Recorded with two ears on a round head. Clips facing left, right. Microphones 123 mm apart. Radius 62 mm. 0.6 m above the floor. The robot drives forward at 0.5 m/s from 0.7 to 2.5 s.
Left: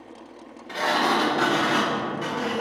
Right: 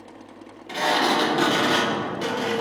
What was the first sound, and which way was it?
A sliding door, 25° right (ahead or behind).